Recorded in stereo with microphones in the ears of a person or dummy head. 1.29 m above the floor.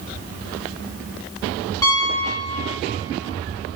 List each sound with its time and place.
1.8 s a piano: 20° left (ahead or behind), 0.8 m